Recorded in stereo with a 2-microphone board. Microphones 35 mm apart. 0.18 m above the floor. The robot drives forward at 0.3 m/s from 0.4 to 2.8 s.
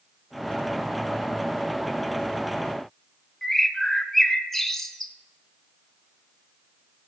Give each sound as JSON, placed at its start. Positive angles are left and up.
{"t": 3.4, "sound": "a bird", "side_deg": 10, "distance_m": 0.8}